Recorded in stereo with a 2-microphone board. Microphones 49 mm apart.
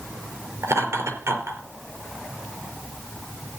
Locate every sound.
0.6 s laughter: 65° right (ahead or behind), 4.5 m